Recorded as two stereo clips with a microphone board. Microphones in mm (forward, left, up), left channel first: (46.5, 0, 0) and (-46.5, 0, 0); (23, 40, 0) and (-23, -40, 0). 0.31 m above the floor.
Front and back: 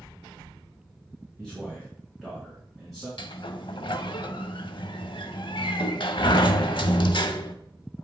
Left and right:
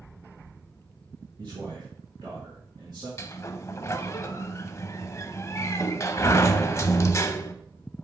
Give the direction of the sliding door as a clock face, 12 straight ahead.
12 o'clock.